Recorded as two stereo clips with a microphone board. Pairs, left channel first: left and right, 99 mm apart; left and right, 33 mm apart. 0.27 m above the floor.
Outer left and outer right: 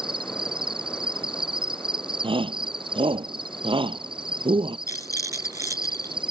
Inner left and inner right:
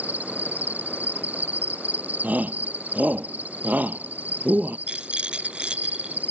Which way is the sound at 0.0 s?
60° right (ahead or behind).